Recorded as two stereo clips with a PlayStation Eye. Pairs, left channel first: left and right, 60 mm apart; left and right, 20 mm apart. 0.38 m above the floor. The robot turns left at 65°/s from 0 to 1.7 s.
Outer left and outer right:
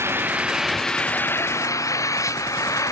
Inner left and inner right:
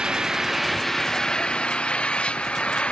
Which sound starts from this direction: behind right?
An engine running, at 0.0 s.